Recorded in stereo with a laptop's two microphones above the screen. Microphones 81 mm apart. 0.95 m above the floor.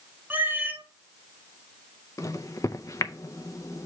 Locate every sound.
0.3 s a cat meowing: 20° right (ahead or behind), 0.7 m
2.2 s a microwave: 40° left (ahead or behind), 0.5 m